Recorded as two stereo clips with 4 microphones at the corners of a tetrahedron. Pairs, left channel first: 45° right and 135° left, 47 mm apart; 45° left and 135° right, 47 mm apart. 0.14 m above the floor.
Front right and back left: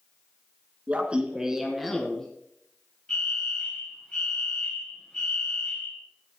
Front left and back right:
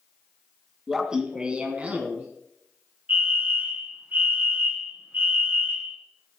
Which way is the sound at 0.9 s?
150° left.